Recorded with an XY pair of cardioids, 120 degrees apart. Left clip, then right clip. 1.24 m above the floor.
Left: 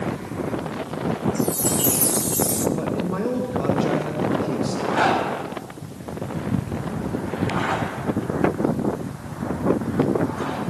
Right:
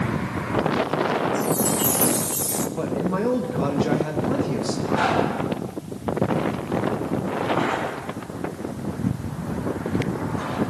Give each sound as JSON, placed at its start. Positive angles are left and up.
{"t": 1.4, "sound": "a chime", "azimuth_deg": 10, "distance_m": 1.0}
{"t": 2.8, "sound": "a man speaking", "azimuth_deg": -15, "distance_m": 2.0}
{"t": 4.9, "sound": "a zipper", "azimuth_deg": 20, "distance_m": 6.0}